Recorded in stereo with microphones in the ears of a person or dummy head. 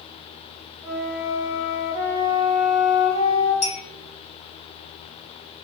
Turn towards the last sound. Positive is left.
turn(degrees=40)  # may be behind; listen again after turning